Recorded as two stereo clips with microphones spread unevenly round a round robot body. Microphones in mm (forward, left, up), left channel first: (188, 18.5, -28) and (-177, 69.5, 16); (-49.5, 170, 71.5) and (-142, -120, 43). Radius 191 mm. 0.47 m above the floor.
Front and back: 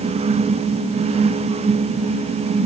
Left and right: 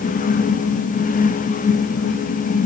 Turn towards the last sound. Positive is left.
No sound to turn to.